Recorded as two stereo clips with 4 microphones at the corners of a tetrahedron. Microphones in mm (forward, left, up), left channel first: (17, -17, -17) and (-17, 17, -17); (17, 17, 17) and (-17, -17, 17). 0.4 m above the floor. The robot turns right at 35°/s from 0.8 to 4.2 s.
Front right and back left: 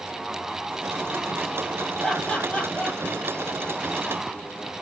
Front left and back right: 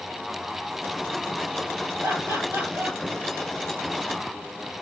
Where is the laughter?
130° right, 8 m; by 3.0 s 95° right, 8 m.